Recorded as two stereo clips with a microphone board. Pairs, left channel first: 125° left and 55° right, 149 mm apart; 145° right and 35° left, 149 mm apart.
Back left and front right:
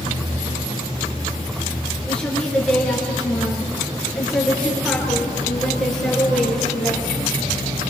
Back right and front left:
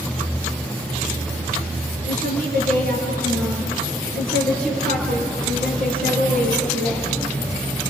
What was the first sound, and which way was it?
A woman speaking, 40° left.